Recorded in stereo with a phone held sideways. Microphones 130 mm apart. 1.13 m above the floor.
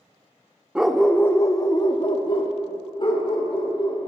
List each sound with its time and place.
0.8 s a dog barking: 10° right (ahead or behind), 0.5 m; by 4.1 s 40° left (ahead or behind), 2 m